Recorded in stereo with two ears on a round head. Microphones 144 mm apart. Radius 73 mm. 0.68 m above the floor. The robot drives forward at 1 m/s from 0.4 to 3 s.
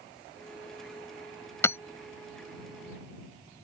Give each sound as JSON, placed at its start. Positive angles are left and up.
{"t": 1.6, "sound": "hammering", "side_deg": 15}